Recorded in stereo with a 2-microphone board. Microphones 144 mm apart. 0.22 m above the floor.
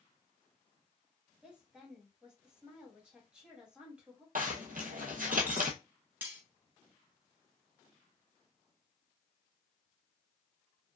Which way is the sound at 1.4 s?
5° right (ahead or behind).